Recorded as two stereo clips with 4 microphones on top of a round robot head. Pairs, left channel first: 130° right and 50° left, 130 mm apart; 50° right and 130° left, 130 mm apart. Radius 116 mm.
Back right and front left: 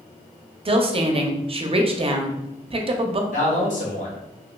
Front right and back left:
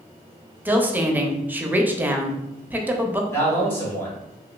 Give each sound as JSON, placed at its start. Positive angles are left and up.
{"t": 0.7, "sound": "a woman speaking", "azimuth_deg": 60, "distance_m": 0.6}
{"t": 3.3, "sound": "a man speaking", "azimuth_deg": -125, "distance_m": 1.5}